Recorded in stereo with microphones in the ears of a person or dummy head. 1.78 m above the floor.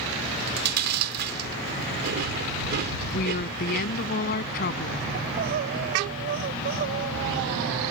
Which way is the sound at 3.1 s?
50° left (ahead or behind).